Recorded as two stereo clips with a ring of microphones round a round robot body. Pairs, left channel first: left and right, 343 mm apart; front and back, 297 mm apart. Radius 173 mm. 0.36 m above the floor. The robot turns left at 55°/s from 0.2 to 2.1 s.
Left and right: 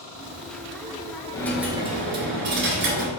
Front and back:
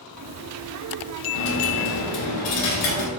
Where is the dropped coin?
15° left, 0.9 m; by 3.1 s 30° right, 0.9 m.